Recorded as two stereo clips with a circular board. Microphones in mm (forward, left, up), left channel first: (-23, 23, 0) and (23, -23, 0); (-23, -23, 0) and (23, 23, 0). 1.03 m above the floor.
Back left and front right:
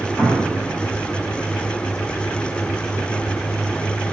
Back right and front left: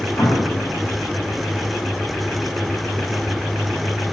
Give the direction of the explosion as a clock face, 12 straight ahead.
3 o'clock.